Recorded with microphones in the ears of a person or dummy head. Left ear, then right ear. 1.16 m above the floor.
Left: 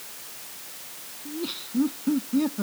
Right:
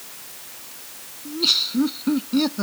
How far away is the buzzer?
I don't hear a buzzer.